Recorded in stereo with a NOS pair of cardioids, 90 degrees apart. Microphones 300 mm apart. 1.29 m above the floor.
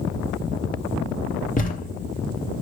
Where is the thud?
30° left, 2.5 m.